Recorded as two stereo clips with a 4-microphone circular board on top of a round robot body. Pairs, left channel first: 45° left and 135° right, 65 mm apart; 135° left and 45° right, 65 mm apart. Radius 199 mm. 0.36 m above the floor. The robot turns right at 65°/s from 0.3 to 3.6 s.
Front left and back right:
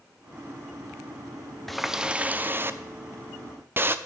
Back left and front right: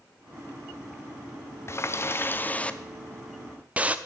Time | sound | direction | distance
1.7 | a running tap | 130° left | 0.7 m